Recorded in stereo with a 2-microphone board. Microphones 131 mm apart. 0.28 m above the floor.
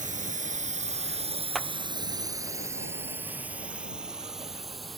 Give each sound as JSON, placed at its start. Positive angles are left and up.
{"t": 0.0, "sound": "a drone", "side_deg": -75}
{"t": 1.6, "sound": "a clap", "side_deg": 0}